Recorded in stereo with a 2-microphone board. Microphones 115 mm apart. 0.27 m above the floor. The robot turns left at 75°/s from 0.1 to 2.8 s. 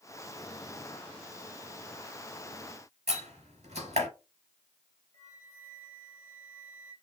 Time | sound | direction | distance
3.1 | a door slam | 75° right (ahead or behind) | 4 m
5.1 | a flute | 80° right | 3.5 m